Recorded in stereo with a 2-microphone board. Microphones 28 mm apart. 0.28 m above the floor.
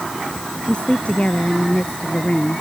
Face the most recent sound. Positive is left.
turn(degrees=50)  # may be behind; listen again after turning